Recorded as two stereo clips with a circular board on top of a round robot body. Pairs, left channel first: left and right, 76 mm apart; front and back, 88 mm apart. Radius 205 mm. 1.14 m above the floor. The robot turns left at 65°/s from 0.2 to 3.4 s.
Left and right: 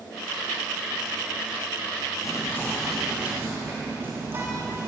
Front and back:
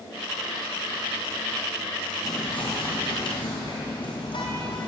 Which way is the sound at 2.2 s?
50° left.